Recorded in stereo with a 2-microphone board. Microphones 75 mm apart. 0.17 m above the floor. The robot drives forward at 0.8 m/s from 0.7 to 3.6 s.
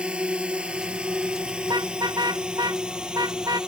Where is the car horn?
70° right (ahead or behind); by 3.6 s 60° right (ahead or behind).